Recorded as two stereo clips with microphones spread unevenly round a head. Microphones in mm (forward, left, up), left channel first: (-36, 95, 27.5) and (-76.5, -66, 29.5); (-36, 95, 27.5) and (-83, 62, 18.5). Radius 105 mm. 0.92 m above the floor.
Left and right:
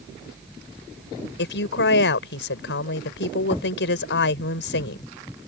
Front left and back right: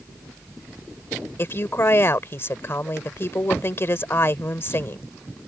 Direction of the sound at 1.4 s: 80° left.